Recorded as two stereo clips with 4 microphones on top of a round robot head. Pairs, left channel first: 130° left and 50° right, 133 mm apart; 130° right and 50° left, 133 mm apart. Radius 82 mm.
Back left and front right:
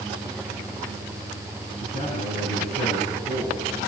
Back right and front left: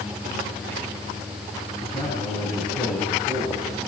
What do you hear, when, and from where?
1.8 s a man speaking: 165° left, 7.5 m